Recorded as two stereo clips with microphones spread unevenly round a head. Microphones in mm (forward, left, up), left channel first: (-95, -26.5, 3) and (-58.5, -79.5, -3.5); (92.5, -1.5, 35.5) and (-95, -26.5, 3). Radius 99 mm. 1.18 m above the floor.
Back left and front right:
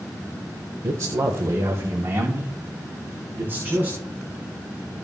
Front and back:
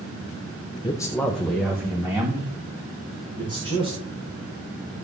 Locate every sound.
0.8 s a man speaking: 60° right, 1.0 m; by 4.0 s 110° right, 4 m